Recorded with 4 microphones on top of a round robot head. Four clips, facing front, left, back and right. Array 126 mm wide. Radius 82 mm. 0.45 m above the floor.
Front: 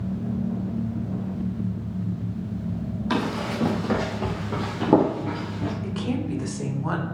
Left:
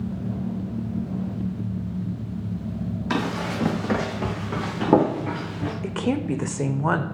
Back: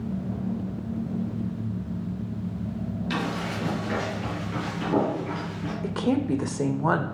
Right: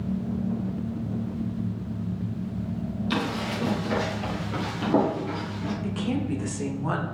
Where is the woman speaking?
135° left, 1.3 m.